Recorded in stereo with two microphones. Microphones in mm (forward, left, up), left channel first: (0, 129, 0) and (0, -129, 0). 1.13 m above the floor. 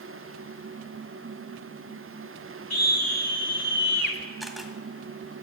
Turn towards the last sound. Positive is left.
turn(degrees=0)  # may be behind; listen again after turning